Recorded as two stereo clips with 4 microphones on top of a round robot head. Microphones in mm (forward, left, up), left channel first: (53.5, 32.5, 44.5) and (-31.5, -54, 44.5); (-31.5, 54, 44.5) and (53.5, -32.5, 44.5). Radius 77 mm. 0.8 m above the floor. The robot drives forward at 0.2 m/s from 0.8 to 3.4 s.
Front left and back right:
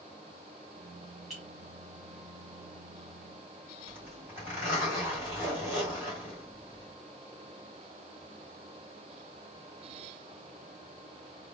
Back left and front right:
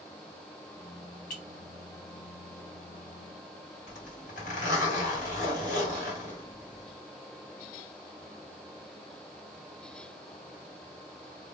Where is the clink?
135° left, 1.4 m.